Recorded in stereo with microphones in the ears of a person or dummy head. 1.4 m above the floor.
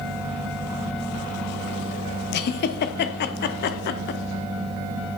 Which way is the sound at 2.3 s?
50° left (ahead or behind).